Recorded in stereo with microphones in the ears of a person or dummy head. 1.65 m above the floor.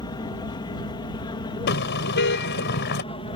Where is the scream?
I don't hear a scream.